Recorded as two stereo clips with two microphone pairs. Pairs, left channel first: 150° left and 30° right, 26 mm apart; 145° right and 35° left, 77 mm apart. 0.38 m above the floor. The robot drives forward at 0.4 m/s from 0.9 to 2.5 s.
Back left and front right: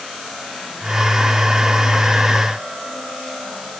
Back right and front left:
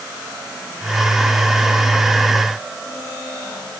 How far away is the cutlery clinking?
No cutlery clinking in this recording.